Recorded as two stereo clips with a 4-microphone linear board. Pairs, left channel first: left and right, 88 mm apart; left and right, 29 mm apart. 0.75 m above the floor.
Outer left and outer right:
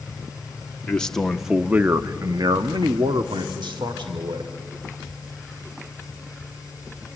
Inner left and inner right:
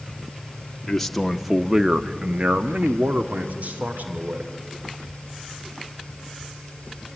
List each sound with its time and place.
0.9 s a man speaking: 15° left (ahead or behind), 1.3 m; by 4.5 s 70° right (ahead or behind), 2.5 m